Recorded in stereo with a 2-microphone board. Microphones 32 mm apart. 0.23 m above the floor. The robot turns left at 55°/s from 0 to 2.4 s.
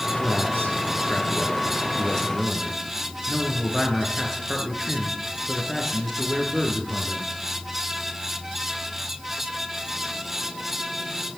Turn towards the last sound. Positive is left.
turn(degrees=10)